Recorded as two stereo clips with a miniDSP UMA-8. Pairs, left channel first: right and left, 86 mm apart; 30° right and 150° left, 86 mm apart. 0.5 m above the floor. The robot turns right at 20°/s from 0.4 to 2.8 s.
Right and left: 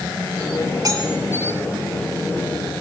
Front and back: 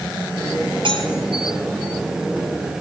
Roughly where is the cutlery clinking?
Behind left.